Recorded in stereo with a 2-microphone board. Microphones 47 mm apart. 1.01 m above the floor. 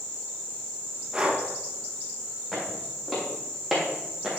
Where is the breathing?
20° right (ahead or behind), 1.2 m.